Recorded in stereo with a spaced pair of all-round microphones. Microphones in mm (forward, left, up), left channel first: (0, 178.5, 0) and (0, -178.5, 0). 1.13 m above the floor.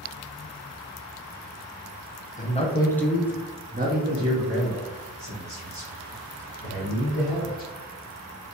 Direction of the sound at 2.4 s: 20° left (ahead or behind).